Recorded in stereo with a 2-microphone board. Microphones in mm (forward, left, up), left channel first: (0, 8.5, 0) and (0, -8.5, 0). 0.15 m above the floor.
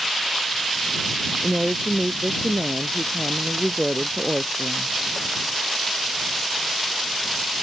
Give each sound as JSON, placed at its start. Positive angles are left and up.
{"t": 1.4, "sound": "a woman speaking", "side_deg": -45}